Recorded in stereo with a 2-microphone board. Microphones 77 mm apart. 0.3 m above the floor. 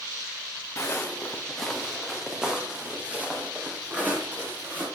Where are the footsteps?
40° left (ahead or behind), 1.6 m; by 4.8 s 25° right (ahead or behind), 5.5 m.